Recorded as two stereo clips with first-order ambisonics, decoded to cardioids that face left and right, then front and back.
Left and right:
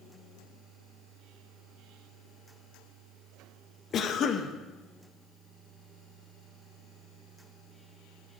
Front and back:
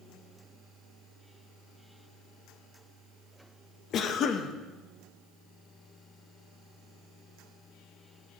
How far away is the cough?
About 0.5 m.